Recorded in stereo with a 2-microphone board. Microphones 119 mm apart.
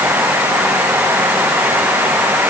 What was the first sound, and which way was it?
Only background noise.